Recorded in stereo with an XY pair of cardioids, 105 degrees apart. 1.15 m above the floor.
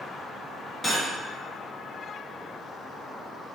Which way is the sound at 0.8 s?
15° left.